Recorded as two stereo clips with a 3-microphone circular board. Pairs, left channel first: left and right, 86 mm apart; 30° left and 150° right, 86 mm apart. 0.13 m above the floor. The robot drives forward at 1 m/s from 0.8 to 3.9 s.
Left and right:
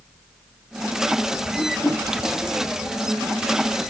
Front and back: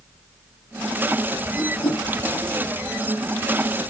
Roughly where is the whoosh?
Ahead.